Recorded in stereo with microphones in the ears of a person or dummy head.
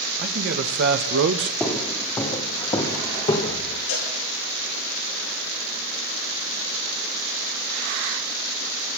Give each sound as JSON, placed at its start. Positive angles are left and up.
{"t": 0.2, "sound": "a man speaking", "side_deg": -55, "distance_m": 1.4}
{"t": 1.6, "sound": "footsteps", "side_deg": 10, "distance_m": 2.0}
{"t": 3.9, "sound": "a cowbell", "side_deg": 70, "distance_m": 7.0}